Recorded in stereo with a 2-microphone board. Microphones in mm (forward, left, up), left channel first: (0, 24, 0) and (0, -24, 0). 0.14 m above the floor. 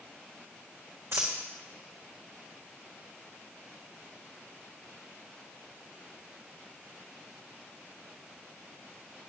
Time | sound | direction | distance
1.1 | a dropped coin | 70° right (ahead or behind) | 2 m